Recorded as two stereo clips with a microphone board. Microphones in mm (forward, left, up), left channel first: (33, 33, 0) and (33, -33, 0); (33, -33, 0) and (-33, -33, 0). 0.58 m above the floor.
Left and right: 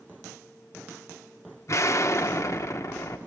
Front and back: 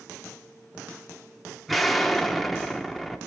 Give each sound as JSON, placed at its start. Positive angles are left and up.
{"t": 1.7, "sound": "an explosion", "azimuth_deg": 90, "distance_m": 0.8}